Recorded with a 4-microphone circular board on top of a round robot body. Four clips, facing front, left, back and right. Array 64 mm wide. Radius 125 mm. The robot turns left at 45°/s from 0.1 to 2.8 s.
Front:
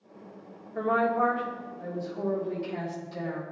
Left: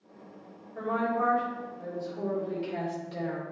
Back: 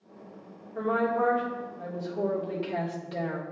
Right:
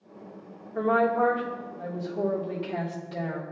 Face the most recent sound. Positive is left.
turn(degrees=-170)